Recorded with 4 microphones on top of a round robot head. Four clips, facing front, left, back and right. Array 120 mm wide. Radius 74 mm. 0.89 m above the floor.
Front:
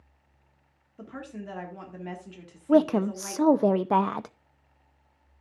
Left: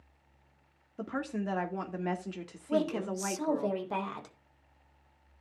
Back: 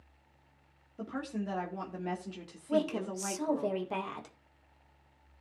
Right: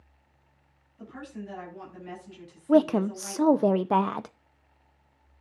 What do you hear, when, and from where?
1.0 s a woman speaking: 95° left, 1.8 m
2.7 s a woman speaking: 40° right, 0.7 m